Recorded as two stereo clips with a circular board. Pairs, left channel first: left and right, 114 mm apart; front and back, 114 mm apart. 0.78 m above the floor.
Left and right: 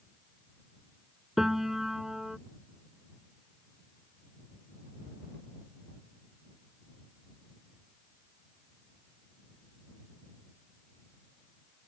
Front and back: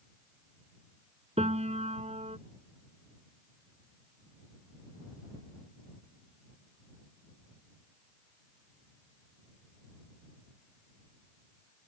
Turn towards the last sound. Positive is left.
turn(degrees=-175)